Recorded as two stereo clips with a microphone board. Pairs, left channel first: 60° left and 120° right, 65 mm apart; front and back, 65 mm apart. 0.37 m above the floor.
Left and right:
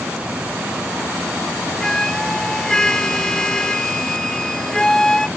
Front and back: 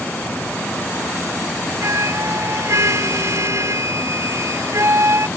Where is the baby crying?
I don't hear a baby crying.